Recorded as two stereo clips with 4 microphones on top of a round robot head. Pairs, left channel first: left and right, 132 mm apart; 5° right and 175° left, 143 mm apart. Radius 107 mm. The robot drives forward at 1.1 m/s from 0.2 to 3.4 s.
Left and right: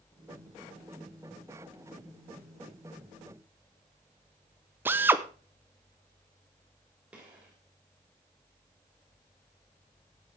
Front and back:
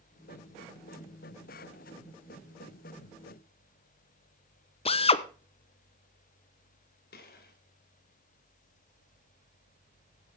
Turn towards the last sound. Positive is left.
turn(degrees=-5)